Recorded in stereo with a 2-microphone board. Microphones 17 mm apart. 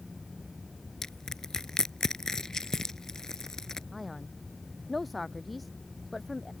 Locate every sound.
1.0 s crushing: 30° left (ahead or behind)
3.9 s a man speaking: centre (ahead or behind)